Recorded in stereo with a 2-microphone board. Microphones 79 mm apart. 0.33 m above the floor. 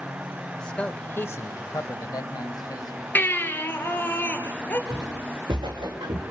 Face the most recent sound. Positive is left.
turn(degrees=-70)  # may be behind; listen again after turning